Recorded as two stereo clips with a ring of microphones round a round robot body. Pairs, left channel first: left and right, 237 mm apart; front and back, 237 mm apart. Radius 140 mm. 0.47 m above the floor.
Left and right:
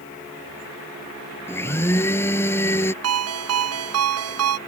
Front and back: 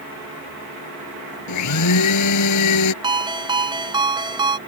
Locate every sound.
1.5 s a blender: 10° left
3.0 s a ringtone: 110° right